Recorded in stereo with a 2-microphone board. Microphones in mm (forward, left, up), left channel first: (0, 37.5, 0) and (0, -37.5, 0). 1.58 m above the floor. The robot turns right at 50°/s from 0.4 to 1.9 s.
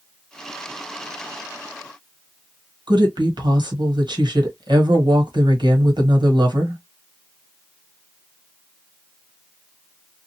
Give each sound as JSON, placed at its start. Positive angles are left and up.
{"t": 2.9, "sound": "a woman speaking", "side_deg": -80, "distance_m": 1.5}